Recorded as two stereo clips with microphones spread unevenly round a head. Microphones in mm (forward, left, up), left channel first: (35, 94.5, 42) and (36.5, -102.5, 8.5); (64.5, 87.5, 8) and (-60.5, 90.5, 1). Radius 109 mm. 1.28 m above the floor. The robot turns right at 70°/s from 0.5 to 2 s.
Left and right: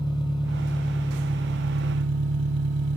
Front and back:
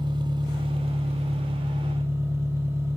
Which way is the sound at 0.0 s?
140° left.